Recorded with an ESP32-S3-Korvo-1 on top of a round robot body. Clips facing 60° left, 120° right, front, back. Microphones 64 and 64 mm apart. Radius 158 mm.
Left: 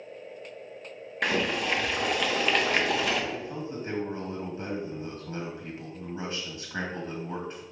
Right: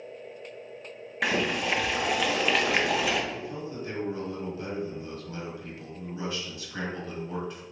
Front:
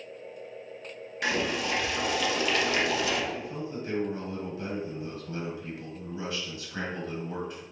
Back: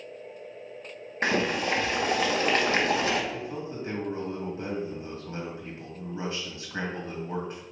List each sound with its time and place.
1.2 s boiling: 155° left, 0.9 m
3.3 s a man speaking: 120° left, 1.9 m